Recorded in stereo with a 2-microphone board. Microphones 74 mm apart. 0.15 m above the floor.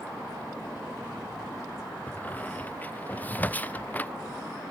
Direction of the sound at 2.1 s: 20° left (ahead or behind).